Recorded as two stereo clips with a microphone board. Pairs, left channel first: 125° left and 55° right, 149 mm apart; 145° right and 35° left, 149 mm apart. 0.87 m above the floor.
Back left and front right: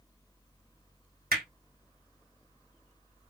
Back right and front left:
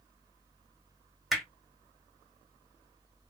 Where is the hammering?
55° right, 2 m.